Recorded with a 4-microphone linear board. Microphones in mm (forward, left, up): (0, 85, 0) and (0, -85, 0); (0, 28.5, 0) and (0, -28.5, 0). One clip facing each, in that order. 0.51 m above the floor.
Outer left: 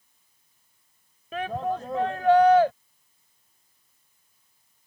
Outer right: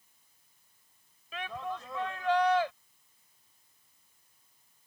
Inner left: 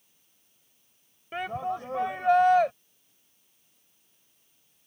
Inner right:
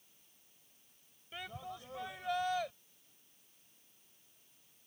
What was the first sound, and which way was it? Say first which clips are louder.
A shout: outer left 10 dB, inner left 15 dB; 50° left (ahead or behind).